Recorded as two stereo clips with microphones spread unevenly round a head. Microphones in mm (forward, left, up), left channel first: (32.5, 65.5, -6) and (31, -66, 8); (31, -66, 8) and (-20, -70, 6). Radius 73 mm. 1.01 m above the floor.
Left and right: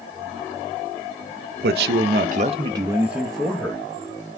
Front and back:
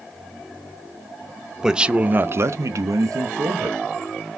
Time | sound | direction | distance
1.6 | a man speaking | 95° right | 0.7 m